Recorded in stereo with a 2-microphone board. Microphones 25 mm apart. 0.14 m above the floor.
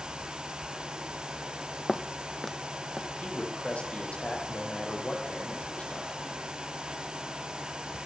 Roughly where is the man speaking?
Left.